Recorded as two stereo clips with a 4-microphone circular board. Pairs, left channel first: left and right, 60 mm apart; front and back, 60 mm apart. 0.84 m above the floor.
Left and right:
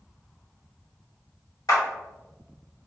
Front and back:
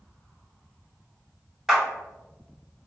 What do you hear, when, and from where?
1.7 s a clap: 95° left, 1.9 m